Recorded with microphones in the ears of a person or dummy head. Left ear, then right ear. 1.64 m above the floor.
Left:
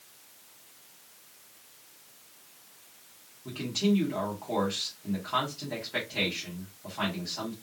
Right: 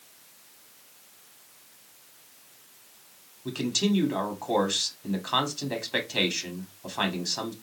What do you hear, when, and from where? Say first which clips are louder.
3.5 s a man speaking: right 2 dB; 85° right, 1.7 m